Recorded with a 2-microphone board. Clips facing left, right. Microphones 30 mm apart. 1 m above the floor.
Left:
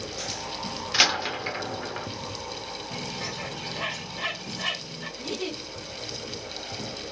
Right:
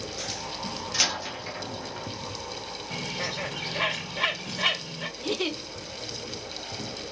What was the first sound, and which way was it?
A door slam, 30° left (ahead or behind).